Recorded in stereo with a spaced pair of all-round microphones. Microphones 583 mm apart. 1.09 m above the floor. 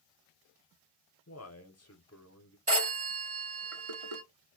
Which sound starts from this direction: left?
A man speaking, at 1.3 s.